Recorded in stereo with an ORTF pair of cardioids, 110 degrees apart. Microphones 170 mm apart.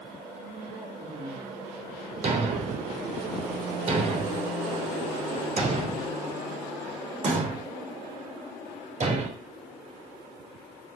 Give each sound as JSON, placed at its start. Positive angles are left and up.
{"t": 0.4, "sound": "a man speaking", "azimuth_deg": -25, "distance_m": 3.5}
{"t": 2.2, "sound": "a thud", "azimuth_deg": -40, "distance_m": 3.0}